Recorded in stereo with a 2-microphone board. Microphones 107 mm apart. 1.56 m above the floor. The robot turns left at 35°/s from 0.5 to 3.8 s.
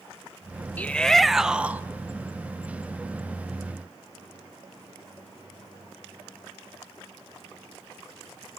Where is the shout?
15° left, 0.8 m; by 1.8 s 20° right, 0.8 m.